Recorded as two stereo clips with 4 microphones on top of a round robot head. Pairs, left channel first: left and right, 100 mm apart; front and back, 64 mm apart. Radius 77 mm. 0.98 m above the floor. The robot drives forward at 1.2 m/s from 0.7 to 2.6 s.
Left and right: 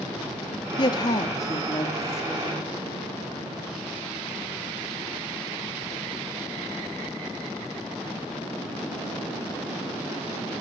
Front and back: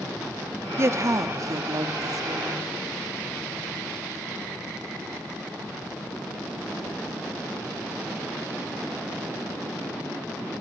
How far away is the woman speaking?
About 1.8 m.